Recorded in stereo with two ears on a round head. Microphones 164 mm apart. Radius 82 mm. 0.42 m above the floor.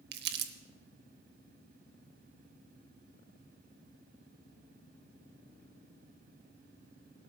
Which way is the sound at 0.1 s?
60° right (ahead or behind).